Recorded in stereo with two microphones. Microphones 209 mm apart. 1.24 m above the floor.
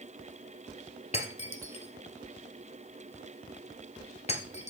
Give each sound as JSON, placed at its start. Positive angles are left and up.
{"t": 1.1, "sound": "breaking glass", "side_deg": 30, "distance_m": 1.5}